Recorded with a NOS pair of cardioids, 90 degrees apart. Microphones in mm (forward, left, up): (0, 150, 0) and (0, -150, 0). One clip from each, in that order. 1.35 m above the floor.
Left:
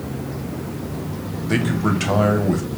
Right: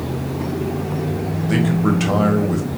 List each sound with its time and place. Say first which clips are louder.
1.5 s a man speaking: right 1 dB; 5° left, 1.0 m